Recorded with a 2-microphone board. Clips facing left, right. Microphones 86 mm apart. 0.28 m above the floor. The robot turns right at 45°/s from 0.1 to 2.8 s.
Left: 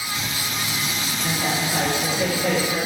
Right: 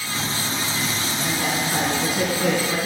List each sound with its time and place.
1.2 s a woman speaking: 165° right, 2.5 m; by 2.8 s 95° right, 2.5 m